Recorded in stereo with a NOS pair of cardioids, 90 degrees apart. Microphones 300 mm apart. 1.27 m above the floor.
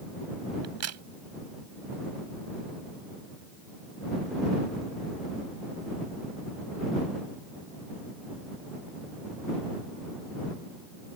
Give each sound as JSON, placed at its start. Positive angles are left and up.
{"t": 0.6, "sound": "a crack", "azimuth_deg": -55}